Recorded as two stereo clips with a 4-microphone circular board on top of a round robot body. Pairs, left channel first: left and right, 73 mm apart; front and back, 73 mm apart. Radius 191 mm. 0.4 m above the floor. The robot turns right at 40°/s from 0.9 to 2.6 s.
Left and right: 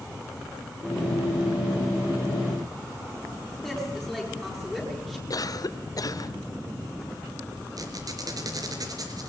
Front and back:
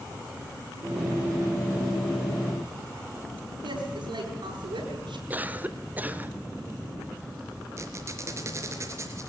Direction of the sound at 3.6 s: 175° right.